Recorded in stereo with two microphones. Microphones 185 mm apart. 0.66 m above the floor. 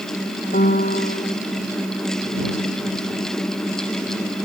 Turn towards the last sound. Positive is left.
turn(degrees=50)  # may be behind; listen again after turning